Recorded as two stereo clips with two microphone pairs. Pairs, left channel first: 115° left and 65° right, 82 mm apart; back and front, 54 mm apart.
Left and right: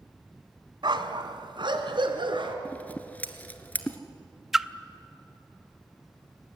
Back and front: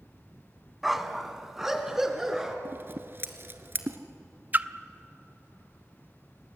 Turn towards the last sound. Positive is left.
turn(degrees=10)